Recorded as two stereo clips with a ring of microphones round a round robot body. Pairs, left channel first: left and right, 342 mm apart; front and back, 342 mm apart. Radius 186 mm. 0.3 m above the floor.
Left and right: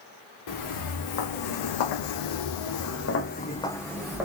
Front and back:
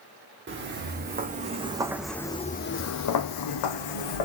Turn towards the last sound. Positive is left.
turn(degrees=-5)